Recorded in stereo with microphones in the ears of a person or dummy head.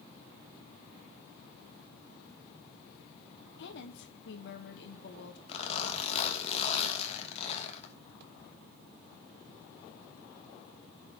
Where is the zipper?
40° left (ahead or behind), 2.5 m.